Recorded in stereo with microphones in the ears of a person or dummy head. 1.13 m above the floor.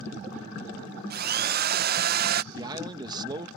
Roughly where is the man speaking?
Centre.